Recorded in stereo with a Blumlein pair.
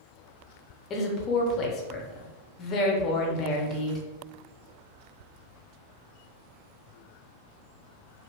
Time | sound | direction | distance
0.9 | a woman speaking | 30° left | 0.7 m